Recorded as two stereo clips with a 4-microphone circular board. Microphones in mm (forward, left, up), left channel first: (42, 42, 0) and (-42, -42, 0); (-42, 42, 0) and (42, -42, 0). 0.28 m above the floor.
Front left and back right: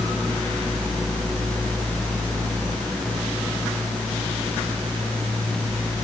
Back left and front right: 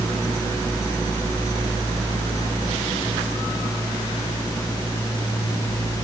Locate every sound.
Only background noise.